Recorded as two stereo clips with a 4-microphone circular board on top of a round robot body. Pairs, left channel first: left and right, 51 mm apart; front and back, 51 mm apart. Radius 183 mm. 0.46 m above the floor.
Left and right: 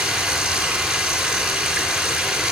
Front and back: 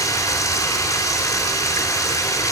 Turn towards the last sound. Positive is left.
turn(degrees=-10)